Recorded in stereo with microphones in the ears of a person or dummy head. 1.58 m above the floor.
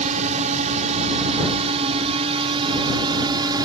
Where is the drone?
40° right (ahead or behind); by 3.6 s 20° right (ahead or behind).